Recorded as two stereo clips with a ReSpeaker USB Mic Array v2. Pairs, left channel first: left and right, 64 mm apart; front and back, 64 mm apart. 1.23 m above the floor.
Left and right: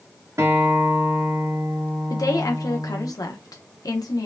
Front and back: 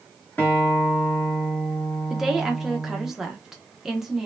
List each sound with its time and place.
0.4 s a guitar: 55° right, 1.5 m
2.1 s a woman speaking: 95° left, 0.8 m